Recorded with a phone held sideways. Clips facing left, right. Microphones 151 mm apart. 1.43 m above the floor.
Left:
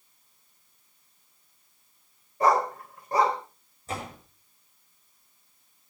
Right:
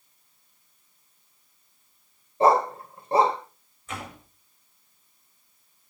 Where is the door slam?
40° left (ahead or behind), 6.5 m.